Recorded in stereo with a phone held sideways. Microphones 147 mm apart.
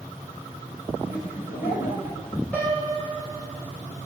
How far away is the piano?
About 4 m.